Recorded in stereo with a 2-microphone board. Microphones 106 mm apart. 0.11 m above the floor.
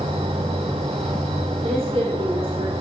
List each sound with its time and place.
0.0 s an insect: 65° right (ahead or behind), 1.1 m
1.6 s a woman speaking: 55° right (ahead or behind), 3 m